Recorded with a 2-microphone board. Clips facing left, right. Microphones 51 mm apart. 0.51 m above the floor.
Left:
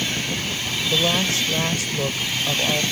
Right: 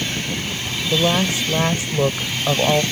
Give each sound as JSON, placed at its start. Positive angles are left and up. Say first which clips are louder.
{"t": 0.9, "sound": "a woman speaking", "louder": "right 3 dB", "side_deg": -15}